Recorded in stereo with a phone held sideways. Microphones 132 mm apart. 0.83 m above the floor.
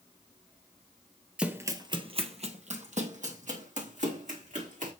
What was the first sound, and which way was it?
Running footsteps, 5° right (ahead or behind).